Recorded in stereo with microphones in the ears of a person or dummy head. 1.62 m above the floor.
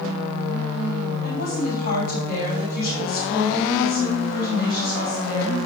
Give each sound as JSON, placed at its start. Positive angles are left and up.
{"t": 1.2, "sound": "a woman speaking", "side_deg": 45, "distance_m": 5.0}